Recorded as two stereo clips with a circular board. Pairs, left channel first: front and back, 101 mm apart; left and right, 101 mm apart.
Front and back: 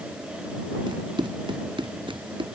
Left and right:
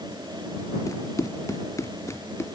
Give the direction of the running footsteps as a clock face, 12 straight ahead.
7 o'clock.